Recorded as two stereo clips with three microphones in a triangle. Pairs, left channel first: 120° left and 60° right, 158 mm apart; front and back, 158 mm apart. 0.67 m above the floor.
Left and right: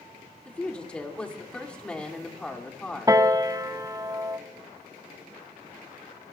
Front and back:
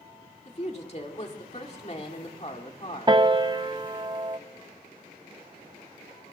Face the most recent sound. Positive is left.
turn(degrees=-120)